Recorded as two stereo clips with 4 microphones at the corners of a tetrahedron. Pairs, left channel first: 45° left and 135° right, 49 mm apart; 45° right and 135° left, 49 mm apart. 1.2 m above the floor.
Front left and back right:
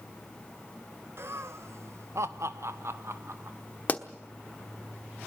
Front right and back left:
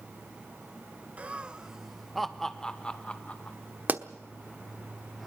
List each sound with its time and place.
1.2 s laughter: 165° right, 1.1 m; by 3.6 s 105° right, 1.5 m
3.9 s a pop: 90° left, 1.1 m